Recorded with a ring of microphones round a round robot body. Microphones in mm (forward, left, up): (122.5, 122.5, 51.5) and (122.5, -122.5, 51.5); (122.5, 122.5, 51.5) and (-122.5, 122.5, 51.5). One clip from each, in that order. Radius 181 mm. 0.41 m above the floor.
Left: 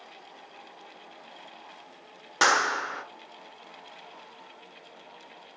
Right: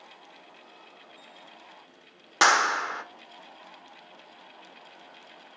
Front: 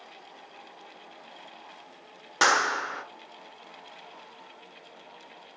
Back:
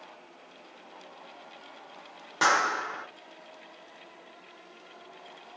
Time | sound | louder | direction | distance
2.4 | a clap | right 2 dB, front 1 dB | 35° right | 1.2 m